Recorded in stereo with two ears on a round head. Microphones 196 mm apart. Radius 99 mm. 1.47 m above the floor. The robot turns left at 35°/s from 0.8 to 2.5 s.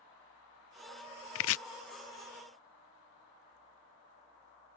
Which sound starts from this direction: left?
Chopping, at 1.4 s.